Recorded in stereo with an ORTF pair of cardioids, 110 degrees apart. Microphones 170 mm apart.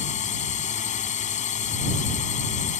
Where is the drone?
45° left.